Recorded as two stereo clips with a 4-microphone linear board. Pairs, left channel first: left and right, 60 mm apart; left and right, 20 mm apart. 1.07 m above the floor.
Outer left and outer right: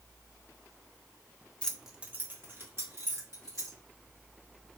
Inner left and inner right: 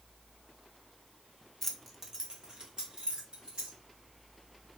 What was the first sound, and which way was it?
Keys jangling, 20° left (ahead or behind).